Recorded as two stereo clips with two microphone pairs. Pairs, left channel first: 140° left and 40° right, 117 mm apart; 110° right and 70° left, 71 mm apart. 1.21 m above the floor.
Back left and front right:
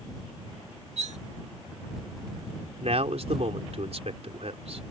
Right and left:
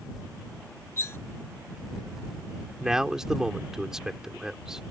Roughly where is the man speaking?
Ahead.